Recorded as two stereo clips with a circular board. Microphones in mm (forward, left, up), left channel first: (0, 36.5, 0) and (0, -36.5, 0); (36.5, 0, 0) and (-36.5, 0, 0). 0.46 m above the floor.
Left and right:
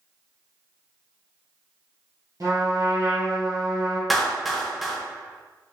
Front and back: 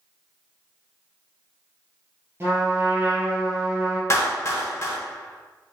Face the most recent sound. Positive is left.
turn(degrees=0)